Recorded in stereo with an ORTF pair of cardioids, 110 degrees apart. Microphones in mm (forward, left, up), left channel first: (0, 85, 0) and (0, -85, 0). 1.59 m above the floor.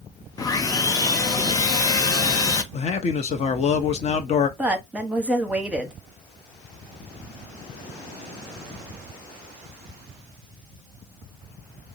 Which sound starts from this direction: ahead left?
A man speaking, at 2.7 s.